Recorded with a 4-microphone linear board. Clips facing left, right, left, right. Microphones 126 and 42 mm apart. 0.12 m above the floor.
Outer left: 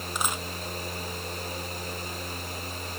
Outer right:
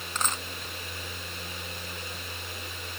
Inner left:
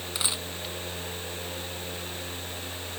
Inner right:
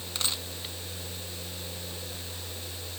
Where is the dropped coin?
10° left (ahead or behind).